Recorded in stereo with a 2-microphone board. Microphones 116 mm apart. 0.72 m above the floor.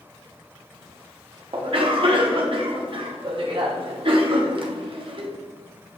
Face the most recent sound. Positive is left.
turn(degrees=-50)  # may be behind; listen again after turning